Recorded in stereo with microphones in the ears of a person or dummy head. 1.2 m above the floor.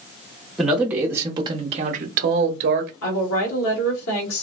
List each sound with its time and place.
0.6 s a man speaking: 5° right (ahead or behind), 1.0 m; by 2.9 s 50° right (ahead or behind), 0.9 m
3.0 s a woman speaking: 85° left, 1.8 m